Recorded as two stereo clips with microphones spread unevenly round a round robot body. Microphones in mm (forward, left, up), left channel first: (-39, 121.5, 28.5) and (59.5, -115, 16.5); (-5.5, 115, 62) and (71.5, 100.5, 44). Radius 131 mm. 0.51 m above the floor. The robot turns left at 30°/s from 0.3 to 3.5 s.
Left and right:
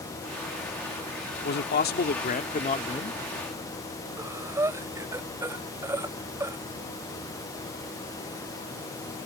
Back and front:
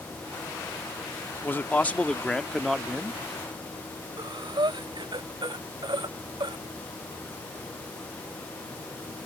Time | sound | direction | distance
1.4 | a man speaking | 105° left | ?
4.2 | breathing | 10° left | ?